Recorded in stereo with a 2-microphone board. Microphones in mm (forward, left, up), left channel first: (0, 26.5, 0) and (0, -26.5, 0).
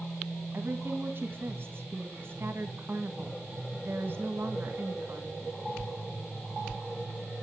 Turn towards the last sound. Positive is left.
turn(degrees=-45)  # may be behind; listen again after turning